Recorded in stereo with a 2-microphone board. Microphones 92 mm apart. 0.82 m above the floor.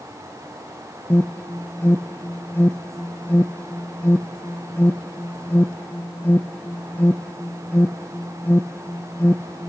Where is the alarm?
20° left (ahead or behind), 0.7 m.